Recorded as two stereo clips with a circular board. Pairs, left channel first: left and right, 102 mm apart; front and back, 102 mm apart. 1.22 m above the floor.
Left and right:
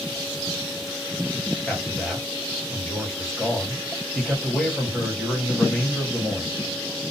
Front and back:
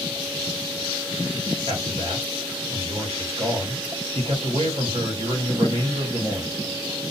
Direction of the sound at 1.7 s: 170° left.